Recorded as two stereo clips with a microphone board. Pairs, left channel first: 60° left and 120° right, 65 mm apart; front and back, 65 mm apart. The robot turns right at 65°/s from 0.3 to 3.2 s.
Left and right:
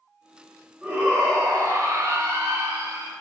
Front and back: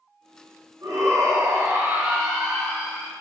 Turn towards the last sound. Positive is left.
turn(degrees=-35)